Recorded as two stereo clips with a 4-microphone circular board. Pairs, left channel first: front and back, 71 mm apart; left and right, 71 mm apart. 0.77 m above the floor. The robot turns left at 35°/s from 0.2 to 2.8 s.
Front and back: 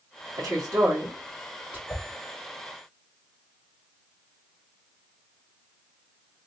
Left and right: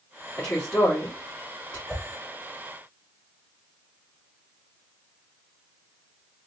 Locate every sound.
0.4 s a woman speaking: 165° left, 2 m; by 1.8 s 115° left, 2 m
1.9 s a whoosh: 25° left, 1.2 m; by 2.0 s 20° left, 1.2 m